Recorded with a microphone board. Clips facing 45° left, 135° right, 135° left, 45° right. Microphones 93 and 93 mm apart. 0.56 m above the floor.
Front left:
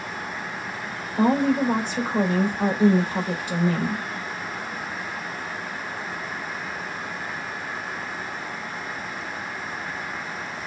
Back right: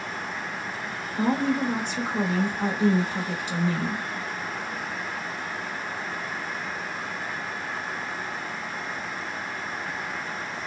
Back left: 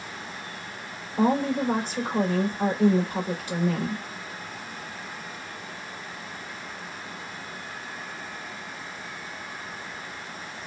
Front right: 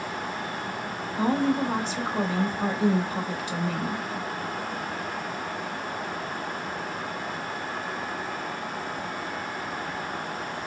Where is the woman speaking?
85° left, 2.5 m.